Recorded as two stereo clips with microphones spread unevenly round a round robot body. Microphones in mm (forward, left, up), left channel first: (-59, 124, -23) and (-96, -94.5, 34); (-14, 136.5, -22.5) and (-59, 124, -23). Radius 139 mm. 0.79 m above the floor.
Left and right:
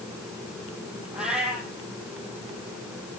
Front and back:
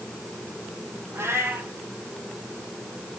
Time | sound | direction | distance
1.1 | a cat meowing | 175° left | 6 m